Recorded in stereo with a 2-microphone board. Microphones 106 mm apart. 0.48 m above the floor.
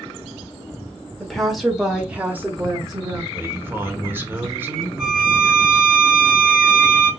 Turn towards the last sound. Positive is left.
turn(degrees=0)  # may be behind; listen again after turning